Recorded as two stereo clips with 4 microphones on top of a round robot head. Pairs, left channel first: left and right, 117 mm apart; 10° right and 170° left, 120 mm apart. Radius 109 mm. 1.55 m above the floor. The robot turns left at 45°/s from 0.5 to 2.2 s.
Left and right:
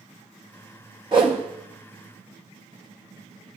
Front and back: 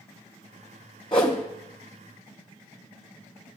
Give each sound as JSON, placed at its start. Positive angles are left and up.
{"t": 1.1, "sound": "a whoosh", "azimuth_deg": -50, "distance_m": 0.6}